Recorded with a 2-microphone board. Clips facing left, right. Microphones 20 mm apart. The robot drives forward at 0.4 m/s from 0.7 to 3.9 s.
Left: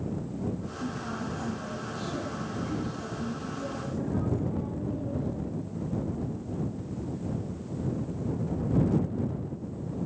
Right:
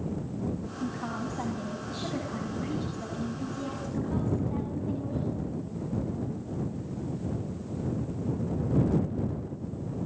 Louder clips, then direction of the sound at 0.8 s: Right 1 dB; 60° right (ahead or behind).